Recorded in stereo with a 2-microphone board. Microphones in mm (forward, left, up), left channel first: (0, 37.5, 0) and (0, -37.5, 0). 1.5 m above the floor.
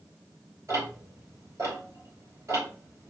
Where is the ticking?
45° right (ahead or behind), 3.5 m.